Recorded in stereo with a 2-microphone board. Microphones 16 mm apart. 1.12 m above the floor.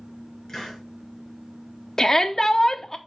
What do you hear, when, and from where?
0.5 s a hiss: 40° left (ahead or behind), 5 m
2.0 s a shout: 25° left (ahead or behind), 0.8 m